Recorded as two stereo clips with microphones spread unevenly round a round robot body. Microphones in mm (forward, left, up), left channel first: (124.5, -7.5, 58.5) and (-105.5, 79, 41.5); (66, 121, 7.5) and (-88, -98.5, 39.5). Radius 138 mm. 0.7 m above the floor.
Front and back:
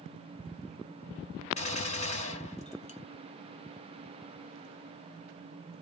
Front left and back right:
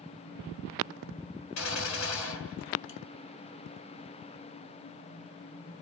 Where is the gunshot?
45° left, 1.2 m.